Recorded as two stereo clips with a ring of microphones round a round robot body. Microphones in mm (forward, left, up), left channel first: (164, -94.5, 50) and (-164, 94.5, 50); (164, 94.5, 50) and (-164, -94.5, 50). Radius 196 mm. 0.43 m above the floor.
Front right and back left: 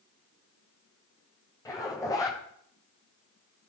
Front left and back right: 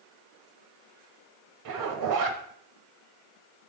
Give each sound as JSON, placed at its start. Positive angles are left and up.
{"t": 1.6, "sound": "a zipper", "azimuth_deg": -110, "distance_m": 1.6}